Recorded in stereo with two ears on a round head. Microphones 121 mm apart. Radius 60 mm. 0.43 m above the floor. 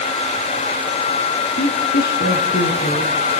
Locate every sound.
1.6 s a woman speaking: 80° left, 5.5 m